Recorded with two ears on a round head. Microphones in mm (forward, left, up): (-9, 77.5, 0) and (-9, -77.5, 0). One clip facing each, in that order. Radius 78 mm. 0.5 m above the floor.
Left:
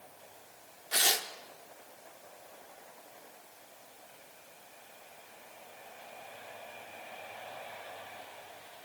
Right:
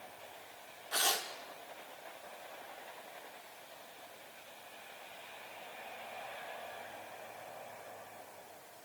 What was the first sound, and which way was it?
Tearing paper, 20° left (ahead or behind).